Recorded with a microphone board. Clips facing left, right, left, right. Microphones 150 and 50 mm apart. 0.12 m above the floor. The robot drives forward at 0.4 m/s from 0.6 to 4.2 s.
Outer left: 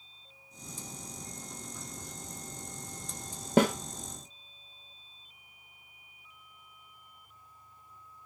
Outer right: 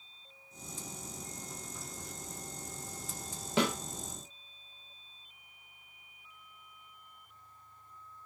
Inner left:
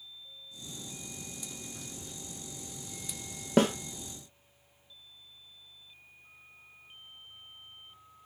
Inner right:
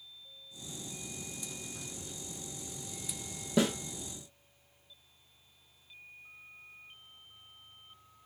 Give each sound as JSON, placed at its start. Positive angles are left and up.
{"t": 3.6, "sound": "a snare drum", "side_deg": 45, "distance_m": 0.7}